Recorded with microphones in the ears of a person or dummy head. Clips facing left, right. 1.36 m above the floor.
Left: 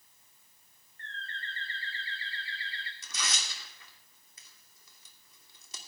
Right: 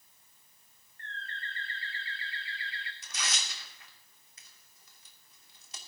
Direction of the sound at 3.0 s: 80° left.